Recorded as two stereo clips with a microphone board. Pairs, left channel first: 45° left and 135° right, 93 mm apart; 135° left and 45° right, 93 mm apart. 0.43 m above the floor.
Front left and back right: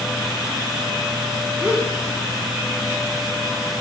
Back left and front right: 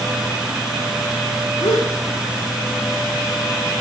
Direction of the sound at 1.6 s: 145° left.